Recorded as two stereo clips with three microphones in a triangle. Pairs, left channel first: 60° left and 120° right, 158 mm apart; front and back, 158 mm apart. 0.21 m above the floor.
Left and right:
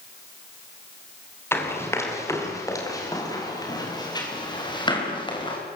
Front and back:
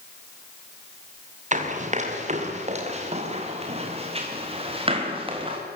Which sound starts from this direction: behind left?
Running footsteps, at 1.5 s.